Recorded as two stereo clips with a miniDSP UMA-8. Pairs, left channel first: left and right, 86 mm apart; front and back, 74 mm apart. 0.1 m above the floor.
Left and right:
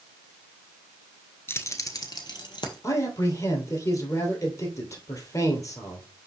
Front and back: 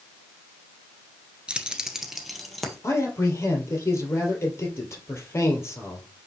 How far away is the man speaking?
About 2.5 m.